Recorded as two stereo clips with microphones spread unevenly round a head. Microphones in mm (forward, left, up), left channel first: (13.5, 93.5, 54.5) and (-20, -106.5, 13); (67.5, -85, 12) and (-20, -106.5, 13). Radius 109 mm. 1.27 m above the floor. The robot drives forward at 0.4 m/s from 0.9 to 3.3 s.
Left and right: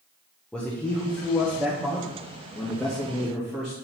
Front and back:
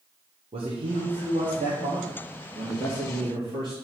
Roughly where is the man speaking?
Behind.